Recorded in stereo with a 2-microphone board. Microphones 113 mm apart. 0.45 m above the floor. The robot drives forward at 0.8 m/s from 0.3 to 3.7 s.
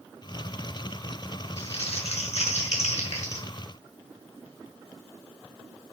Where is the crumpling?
65° left (ahead or behind), 5 m; by 3.5 s 80° left, 4.5 m.